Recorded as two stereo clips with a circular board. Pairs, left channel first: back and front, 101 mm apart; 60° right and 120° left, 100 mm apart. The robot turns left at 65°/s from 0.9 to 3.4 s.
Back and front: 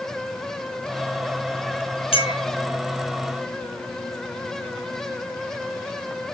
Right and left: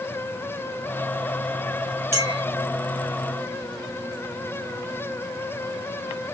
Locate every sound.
2.1 s a clink: straight behind, 0.9 m; by 2.4 s 160° left, 0.9 m